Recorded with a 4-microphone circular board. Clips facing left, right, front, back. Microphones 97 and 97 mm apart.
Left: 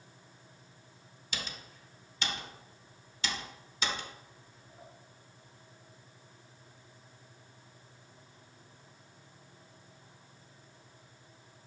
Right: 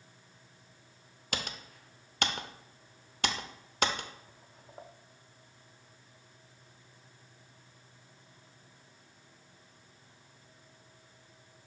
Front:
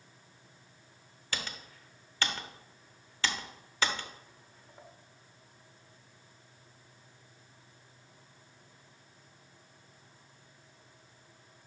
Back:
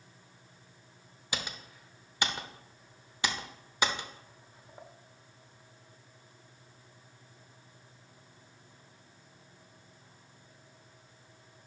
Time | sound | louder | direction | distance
1.3 | typing on a keyboard | right 4 dB, back 1 dB | 105° right | 0.6 m